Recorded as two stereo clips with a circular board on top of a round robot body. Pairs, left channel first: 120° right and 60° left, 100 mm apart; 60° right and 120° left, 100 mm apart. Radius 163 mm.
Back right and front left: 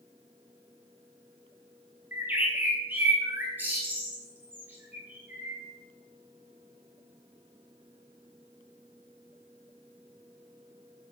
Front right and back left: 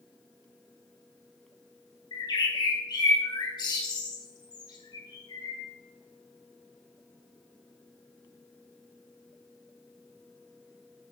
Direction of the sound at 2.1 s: 15° right.